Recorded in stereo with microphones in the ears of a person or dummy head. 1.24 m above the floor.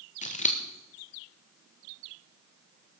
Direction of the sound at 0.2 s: 35° left (ahead or behind).